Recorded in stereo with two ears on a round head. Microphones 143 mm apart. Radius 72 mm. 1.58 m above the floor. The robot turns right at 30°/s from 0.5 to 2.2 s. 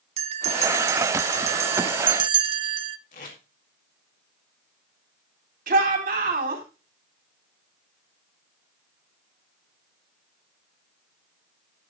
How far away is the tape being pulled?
About 3.5 m.